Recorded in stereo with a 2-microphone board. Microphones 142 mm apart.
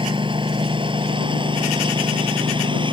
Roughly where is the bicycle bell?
I don't hear a bicycle bell.